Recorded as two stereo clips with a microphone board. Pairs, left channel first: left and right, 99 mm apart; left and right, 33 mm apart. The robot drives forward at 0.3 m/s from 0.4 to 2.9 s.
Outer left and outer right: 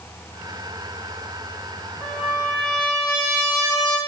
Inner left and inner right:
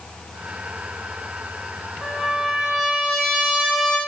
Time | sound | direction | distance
2.0 | a trumpet | 10° left (ahead or behind) | 1.0 m